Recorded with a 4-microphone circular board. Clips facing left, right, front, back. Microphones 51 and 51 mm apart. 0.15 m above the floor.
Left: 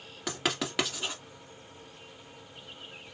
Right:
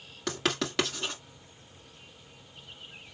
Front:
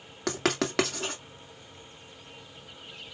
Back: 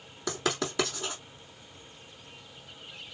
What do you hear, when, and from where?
0.3 s writing: 5° left, 2 m